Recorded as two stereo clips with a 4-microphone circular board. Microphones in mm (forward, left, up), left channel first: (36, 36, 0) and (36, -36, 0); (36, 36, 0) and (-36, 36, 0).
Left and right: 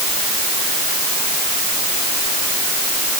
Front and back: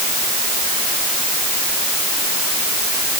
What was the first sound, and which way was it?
Only background noise.